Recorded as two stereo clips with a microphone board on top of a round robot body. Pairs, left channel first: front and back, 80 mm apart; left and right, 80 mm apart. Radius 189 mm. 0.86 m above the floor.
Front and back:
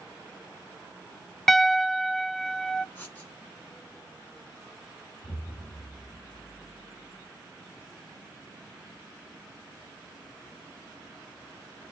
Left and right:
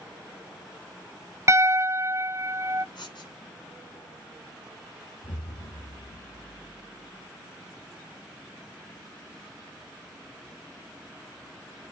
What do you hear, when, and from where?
1.5 s a piano: 85° right, 0.7 m
3.0 s writing: 65° left, 2.5 m
5.2 s an explosion: 45° left, 2.5 m